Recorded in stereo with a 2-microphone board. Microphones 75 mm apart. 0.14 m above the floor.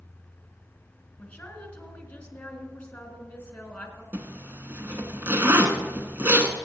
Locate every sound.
1.2 s a woman speaking: 15° left (ahead or behind), 1.6 m
4.1 s a zipper: 30° right (ahead or behind), 1.0 m